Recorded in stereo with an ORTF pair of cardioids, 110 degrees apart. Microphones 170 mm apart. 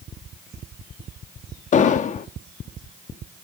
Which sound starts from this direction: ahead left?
An explosion, at 1.7 s.